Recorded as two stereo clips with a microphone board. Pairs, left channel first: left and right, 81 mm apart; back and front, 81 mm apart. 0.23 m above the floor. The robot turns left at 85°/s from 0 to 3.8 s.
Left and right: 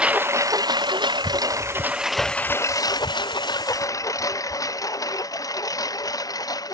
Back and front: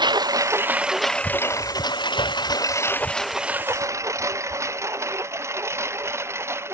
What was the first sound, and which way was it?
A lawn mower, 15° right.